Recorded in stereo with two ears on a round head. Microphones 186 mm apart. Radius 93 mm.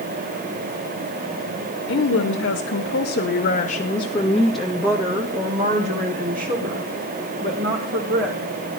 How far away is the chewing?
I don't hear chewing.